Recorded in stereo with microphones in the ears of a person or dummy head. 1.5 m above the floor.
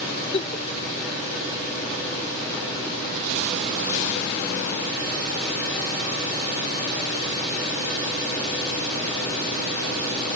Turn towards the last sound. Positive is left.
turn(degrees=35)  # may be behind; listen again after turning